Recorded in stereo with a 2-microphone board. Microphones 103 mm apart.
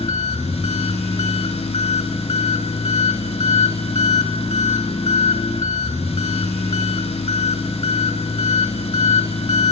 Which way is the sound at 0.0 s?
75° left (ahead or behind).